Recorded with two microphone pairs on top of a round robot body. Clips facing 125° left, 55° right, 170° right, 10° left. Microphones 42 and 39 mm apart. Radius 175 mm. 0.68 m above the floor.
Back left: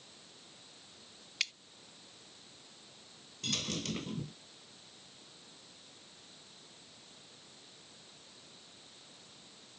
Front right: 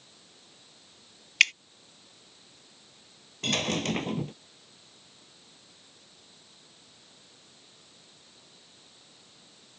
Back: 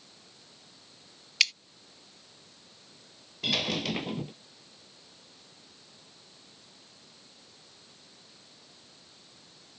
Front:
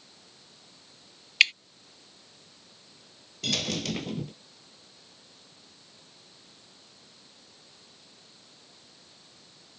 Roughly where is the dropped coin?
Right.